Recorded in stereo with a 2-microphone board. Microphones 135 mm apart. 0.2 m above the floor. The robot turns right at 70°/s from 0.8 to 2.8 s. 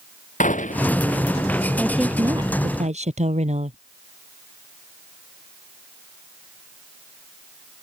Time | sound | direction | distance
0.4 | a gunshot | 70° left (ahead or behind) | ?
1.8 | a woman speaking | 170° left | ?